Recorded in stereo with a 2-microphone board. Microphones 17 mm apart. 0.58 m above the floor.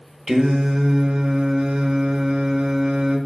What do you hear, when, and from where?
0.3 s singing: 55° right (ahead or behind), 0.6 m